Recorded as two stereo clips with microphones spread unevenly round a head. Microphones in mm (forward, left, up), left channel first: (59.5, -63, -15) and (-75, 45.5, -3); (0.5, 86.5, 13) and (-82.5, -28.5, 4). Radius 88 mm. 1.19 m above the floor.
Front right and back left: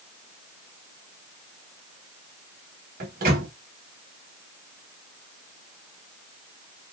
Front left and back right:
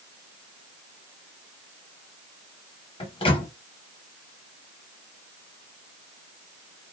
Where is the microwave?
105° left, 0.9 m.